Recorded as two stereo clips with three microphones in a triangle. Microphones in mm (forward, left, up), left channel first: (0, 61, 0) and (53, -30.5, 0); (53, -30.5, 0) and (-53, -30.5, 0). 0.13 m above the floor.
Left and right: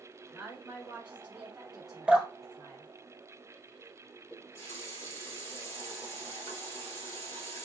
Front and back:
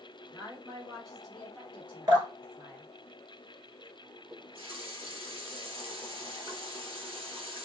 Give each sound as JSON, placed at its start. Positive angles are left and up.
{"t": 0.3, "sound": "a woman speaking", "azimuth_deg": -30, "distance_m": 1.8}
{"t": 2.1, "sound": "dripping", "azimuth_deg": -135, "distance_m": 1.5}
{"t": 4.3, "sound": "a running tap", "azimuth_deg": 180, "distance_m": 1.6}